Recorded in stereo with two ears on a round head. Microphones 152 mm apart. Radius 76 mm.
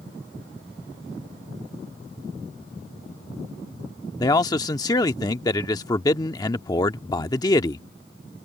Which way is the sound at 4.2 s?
20° left (ahead or behind).